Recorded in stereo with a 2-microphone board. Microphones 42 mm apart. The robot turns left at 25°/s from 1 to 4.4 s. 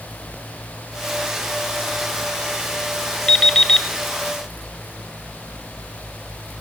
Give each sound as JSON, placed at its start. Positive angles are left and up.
{"t": 3.3, "sound": "an alarm clock", "side_deg": 20, "distance_m": 0.5}